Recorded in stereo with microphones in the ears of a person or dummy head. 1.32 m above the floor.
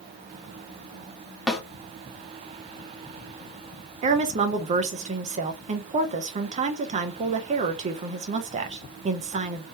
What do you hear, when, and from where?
1.5 s a snare drum: centre (ahead or behind), 1.2 m
4.0 s a woman speaking: 30° right (ahead or behind), 0.8 m